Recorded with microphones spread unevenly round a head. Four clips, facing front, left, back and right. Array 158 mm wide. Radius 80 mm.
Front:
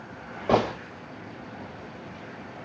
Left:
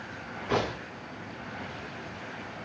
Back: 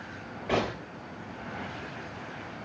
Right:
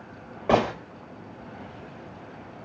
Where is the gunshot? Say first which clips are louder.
Right 7 dB, front 6 dB; 60° right, 5 m.